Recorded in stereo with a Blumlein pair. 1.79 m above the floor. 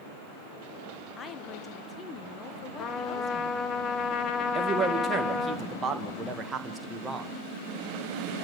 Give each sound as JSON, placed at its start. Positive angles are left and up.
{"t": 1.2, "sound": "a woman speaking", "azimuth_deg": 20, "distance_m": 1.9}
{"t": 2.8, "sound": "a trumpet", "azimuth_deg": 25, "distance_m": 1.6}
{"t": 4.5, "sound": "a man speaking", "azimuth_deg": -20, "distance_m": 2.5}